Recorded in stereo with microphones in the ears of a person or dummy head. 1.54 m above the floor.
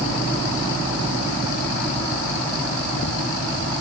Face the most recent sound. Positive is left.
No sound to turn to.